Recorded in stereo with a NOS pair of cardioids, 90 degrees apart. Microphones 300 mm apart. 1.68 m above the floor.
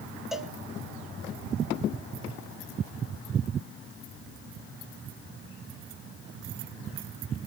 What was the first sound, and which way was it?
A cowbell, straight ahead.